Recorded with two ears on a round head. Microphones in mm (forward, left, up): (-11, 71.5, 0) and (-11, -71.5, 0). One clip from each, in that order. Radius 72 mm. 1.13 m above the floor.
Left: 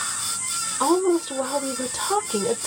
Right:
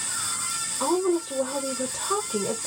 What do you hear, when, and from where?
0.8 s a woman speaking: 90° left, 0.8 m